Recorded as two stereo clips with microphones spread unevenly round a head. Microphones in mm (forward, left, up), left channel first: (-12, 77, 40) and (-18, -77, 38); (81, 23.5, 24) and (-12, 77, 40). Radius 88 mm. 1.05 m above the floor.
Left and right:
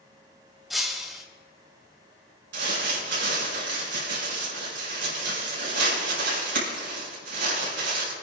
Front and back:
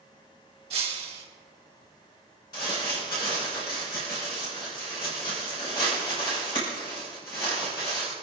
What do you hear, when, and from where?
0.7 s breaking glass: straight behind, 1.3 m
2.5 s crumpling: 90° right, 4.5 m